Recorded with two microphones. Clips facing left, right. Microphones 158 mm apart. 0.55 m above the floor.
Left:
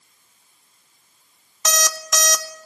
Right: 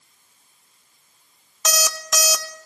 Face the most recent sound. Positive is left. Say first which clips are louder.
# even
turn(degrees=-5)  # may be behind; listen again after turning